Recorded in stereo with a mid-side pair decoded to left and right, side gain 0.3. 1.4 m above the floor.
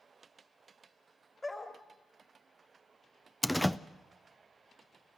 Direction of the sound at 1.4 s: 30° left.